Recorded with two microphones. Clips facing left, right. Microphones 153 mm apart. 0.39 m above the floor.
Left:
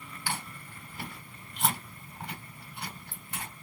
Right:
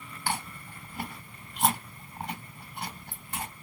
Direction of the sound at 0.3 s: 50° right (ahead or behind).